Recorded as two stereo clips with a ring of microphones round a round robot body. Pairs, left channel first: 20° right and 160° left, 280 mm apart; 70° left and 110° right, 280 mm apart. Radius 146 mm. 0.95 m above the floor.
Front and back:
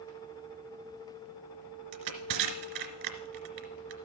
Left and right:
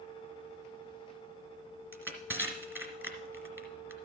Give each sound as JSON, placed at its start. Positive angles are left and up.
{"t": 1.9, "sound": "crushing", "azimuth_deg": 165, "distance_m": 1.6}